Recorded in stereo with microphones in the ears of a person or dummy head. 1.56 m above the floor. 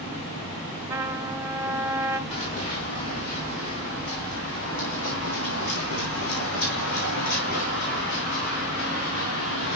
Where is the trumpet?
10° right (ahead or behind), 1.6 m.